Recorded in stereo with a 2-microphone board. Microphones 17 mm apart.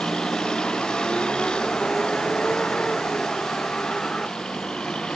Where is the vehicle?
75° left (ahead or behind); by 5.2 s 80° left.